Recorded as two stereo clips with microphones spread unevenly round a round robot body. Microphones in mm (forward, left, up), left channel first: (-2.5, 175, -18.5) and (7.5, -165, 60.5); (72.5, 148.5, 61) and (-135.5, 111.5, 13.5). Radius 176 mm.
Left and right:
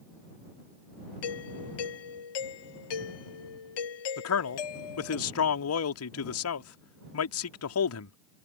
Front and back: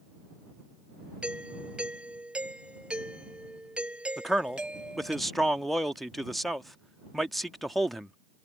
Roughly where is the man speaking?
Left.